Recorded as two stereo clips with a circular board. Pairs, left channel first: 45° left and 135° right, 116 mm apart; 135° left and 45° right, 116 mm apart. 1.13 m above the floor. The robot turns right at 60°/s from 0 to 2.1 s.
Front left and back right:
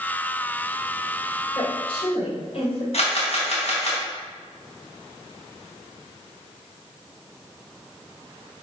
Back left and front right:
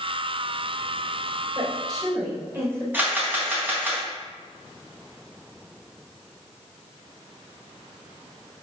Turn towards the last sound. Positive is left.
turn(degrees=25)